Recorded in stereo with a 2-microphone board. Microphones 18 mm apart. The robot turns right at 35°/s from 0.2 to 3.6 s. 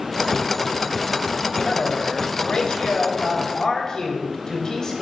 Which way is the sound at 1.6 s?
70° left.